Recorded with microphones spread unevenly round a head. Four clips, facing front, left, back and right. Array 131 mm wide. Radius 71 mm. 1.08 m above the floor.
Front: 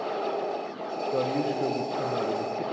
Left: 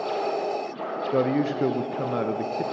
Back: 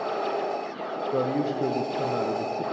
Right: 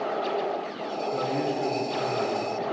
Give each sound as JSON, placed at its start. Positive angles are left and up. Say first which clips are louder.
{"t": 1.1, "sound": "a man speaking", "louder": "left 6 dB, back 1 dB", "azimuth_deg": 95, "distance_m": 0.5}